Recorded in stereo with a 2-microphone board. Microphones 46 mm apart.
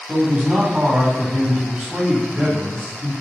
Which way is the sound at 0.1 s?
30° right (ahead or behind).